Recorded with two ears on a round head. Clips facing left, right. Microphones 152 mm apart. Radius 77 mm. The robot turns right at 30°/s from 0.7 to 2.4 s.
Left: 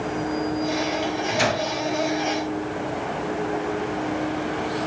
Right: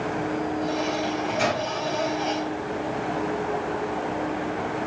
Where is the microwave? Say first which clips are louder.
Left 1 dB; 80° left, 2 m; by 1.6 s 75° left (ahead or behind), 2 m.